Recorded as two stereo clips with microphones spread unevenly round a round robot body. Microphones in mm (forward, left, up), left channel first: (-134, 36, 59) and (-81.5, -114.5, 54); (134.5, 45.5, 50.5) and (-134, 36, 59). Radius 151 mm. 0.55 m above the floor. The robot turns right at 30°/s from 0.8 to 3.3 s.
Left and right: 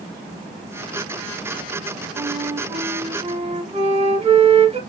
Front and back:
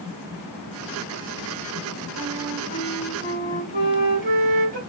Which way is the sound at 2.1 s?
155° right.